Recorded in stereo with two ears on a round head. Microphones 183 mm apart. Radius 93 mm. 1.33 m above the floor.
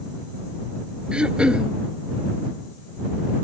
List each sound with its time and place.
1.1 s throat clearing: 5° right (ahead or behind)